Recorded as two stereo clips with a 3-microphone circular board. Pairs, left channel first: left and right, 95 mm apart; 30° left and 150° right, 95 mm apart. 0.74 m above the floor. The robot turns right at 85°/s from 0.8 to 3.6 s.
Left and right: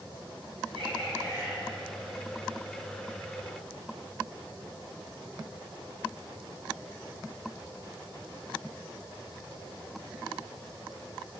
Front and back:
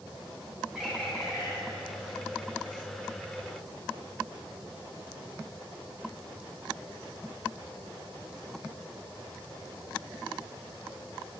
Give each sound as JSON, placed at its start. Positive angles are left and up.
{"t": 0.8, "sound": "a bird", "azimuth_deg": -65, "distance_m": 4.5}